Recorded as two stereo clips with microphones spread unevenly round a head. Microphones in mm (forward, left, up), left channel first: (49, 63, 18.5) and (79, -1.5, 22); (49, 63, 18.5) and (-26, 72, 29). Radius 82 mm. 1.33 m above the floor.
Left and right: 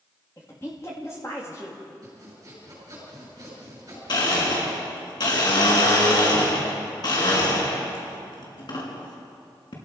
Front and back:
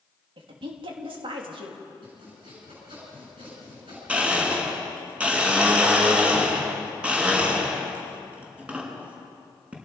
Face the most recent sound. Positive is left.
turn(degrees=100)